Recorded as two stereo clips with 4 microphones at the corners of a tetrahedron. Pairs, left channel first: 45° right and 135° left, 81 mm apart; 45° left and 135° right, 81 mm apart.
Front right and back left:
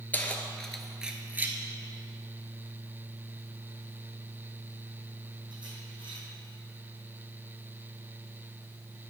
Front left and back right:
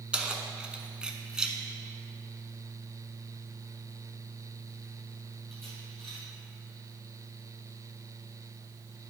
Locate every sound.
0.1 s keys jangling: 75° right, 0.8 m; by 6.2 s 135° left, 3 m